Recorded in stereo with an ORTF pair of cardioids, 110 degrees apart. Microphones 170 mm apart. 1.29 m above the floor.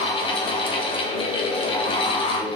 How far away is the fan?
About 0.8 m.